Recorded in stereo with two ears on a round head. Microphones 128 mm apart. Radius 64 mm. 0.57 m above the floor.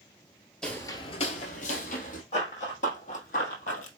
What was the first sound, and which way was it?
Footsteps, 5° left (ahead or behind).